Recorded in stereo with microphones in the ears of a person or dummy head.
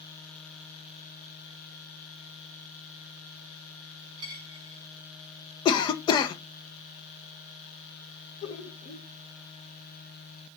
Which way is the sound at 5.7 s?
25° left (ahead or behind).